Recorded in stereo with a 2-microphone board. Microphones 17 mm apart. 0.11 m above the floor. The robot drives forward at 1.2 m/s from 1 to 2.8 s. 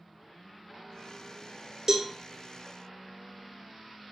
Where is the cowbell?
30° right (ahead or behind), 0.7 m; by 2.1 s 45° right (ahead or behind), 0.5 m.